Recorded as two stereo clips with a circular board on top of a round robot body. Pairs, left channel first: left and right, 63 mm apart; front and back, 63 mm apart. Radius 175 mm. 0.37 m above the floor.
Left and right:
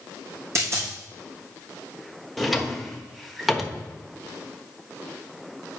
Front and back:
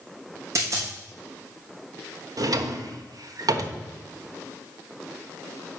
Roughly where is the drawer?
Behind.